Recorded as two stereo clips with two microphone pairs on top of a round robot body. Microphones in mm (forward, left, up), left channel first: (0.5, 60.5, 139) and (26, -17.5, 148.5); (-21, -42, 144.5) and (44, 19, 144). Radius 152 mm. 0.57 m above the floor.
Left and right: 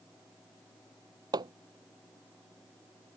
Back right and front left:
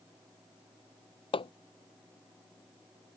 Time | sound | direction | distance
1.3 | hammering | 115° right | ?